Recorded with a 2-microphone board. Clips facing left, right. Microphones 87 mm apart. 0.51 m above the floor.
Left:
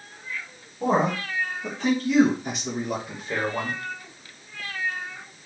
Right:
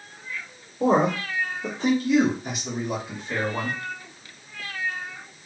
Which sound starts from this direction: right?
A man speaking, at 0.8 s.